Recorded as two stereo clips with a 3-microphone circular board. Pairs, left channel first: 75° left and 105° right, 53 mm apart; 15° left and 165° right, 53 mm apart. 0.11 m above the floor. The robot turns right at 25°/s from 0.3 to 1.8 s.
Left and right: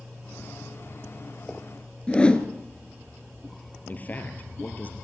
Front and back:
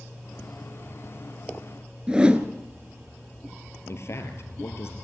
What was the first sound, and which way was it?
A whoosh, 135° left.